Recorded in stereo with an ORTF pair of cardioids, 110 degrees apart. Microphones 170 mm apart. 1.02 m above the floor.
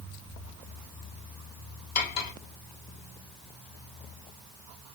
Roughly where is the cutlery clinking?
Ahead left.